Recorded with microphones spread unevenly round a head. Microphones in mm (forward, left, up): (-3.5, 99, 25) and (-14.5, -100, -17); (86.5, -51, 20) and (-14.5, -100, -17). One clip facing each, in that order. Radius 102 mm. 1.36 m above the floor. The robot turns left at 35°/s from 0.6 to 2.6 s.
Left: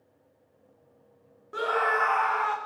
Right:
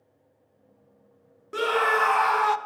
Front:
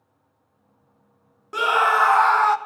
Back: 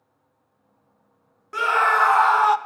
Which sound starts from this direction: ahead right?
A scream, at 1.5 s.